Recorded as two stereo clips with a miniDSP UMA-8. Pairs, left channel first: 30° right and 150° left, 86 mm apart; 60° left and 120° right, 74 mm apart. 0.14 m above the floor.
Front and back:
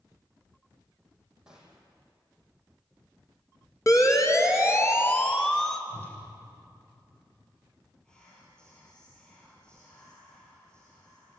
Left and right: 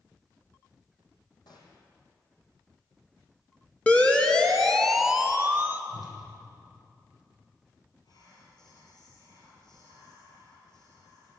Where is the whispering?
50° left, 3.5 m.